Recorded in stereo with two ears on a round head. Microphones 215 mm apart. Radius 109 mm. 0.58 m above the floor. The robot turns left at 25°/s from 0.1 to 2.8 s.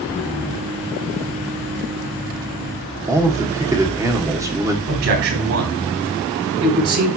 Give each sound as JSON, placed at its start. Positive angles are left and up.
{"t": 3.1, "sound": "a man speaking", "side_deg": -15, "distance_m": 1.5}
{"t": 4.9, "sound": "a man speaking", "side_deg": -60, "distance_m": 3.5}